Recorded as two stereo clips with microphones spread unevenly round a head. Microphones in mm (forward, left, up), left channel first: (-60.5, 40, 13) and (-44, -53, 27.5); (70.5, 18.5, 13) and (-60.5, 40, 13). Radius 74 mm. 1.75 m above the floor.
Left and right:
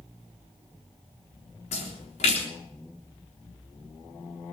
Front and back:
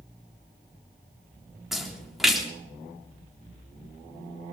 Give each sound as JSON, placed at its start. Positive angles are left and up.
{"t": 1.7, "sound": "a splash", "azimuth_deg": 80, "distance_m": 3.5}